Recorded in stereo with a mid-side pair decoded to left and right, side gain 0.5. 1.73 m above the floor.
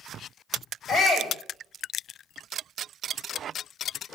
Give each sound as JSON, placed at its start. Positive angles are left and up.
{"t": 0.9, "sound": "a shout", "azimuth_deg": 15, "distance_m": 6.5}